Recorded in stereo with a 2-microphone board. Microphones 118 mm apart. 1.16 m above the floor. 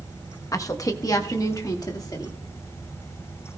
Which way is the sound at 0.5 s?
30° left (ahead or behind).